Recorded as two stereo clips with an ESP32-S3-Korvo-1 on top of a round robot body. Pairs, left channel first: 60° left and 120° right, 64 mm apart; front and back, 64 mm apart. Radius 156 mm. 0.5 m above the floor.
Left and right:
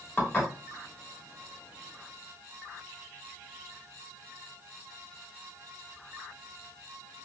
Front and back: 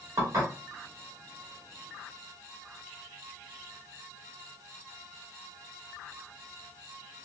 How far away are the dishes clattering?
About 2.5 m.